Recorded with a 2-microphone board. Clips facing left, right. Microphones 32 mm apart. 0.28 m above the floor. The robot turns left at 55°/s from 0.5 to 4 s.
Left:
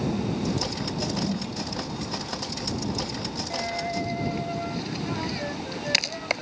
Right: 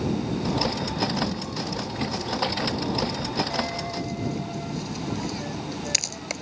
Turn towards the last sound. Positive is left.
turn(degrees=30)  # may be behind; listen again after turning